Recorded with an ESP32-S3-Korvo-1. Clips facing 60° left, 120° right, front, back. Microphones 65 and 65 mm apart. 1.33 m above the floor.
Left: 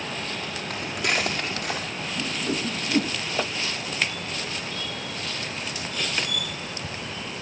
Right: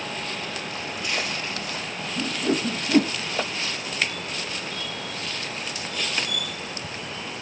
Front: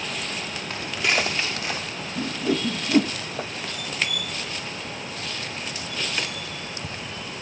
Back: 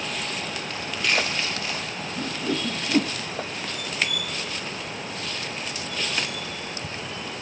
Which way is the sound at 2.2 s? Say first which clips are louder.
Right 4 dB, front 3 dB; 75° right.